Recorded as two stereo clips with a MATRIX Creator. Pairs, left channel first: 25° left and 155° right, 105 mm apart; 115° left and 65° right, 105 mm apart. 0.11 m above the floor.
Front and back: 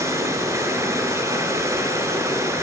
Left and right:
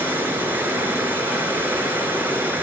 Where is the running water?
125° right, 0.9 m.